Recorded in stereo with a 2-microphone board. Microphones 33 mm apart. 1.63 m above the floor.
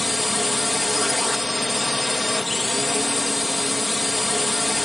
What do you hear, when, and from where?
0.0 s a drone: centre (ahead or behind)